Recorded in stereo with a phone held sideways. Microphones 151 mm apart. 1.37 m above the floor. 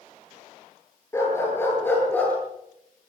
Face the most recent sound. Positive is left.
turn(degrees=10)  # may be behind; listen again after turning